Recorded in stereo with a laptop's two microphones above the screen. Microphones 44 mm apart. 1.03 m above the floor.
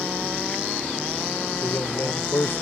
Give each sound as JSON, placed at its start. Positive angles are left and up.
{"t": 1.6, "sound": "a man speaking", "side_deg": 65}